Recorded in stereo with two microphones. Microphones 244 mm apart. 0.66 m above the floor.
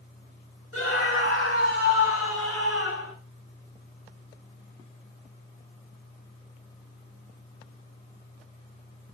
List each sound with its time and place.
0.7 s a scream: 60° left (ahead or behind), 4 m; by 3.1 s 65° left (ahead or behind), 7.5 m